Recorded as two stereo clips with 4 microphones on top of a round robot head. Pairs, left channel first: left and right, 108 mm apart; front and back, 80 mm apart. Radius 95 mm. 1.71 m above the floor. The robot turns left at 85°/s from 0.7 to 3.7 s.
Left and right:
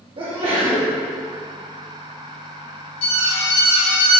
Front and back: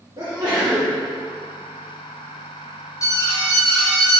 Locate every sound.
0.2 s a sneeze: 125° right, 2.5 m; by 0.9 s 145° right, 2.5 m
3.0 s an alarm: 50° left, 2.5 m; by 4.2 s 10° right, 2.5 m